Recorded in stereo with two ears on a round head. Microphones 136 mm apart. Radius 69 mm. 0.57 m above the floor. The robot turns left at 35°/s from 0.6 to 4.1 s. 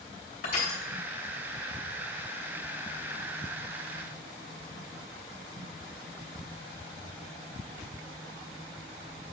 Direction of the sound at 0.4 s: 60° left (ahead or behind).